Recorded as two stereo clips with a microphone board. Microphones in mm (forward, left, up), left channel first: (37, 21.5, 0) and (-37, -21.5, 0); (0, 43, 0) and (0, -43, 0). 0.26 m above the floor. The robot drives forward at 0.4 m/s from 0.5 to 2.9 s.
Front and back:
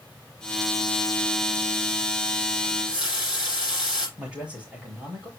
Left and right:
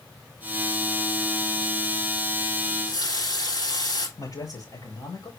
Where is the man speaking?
130° left, 6.5 m.